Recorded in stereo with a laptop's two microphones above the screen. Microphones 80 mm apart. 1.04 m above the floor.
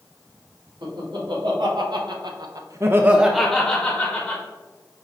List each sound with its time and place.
0.8 s laughter: 70° right (ahead or behind), 1.5 m; by 4.4 s 30° left (ahead or behind), 1.1 m